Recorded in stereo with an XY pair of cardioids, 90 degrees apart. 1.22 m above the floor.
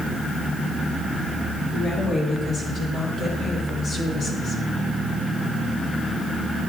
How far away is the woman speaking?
About 4 m.